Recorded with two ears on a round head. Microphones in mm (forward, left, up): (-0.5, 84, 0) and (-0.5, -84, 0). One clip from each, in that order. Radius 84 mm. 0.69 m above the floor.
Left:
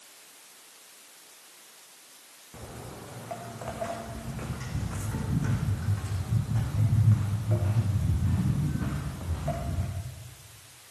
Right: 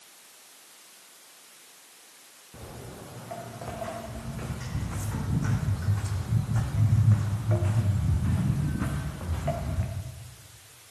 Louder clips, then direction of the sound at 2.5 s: Even; 25° left (ahead or behind).